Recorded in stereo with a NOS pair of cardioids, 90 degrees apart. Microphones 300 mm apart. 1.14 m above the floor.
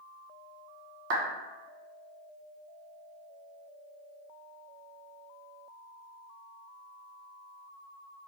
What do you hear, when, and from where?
1.1 s a clap: 60° right, 1.0 m